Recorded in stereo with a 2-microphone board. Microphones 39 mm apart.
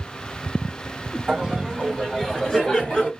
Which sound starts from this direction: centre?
Laughter, at 1.3 s.